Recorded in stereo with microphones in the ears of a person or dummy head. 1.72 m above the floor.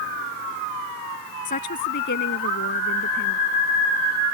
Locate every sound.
1.4 s a woman speaking: 40° left (ahead or behind); by 3.4 s 50° left (ahead or behind)